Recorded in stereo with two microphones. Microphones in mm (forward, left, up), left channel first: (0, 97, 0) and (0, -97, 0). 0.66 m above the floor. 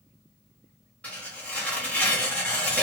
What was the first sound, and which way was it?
Tearing paper, 5° left (ahead or behind).